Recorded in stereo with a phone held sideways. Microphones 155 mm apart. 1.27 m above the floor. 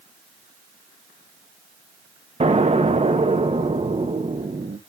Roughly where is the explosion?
Right.